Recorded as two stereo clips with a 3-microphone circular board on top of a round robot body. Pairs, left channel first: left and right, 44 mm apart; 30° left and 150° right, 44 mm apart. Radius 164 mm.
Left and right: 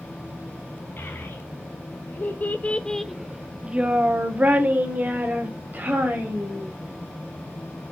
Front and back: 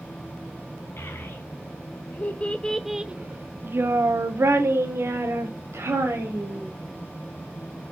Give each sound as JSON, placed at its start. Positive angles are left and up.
{"t": 1.0, "sound": "a child speaking", "azimuth_deg": 55, "distance_m": 1.5}